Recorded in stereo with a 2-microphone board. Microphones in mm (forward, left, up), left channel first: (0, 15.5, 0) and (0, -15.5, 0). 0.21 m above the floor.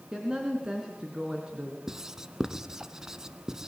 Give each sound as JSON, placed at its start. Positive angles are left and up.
{"t": 0.1, "sound": "a woman speaking", "side_deg": -25, "distance_m": 3.0}
{"t": 1.9, "sound": "writing", "side_deg": -20, "distance_m": 1.0}